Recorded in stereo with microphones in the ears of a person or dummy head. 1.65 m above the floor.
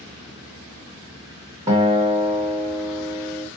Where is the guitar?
15° right (ahead or behind), 1.2 m.